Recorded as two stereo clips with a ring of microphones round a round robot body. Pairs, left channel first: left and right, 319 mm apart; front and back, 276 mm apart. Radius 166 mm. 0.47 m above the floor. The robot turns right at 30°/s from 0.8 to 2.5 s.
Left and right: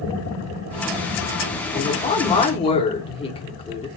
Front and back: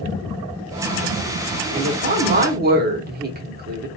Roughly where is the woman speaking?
Behind left.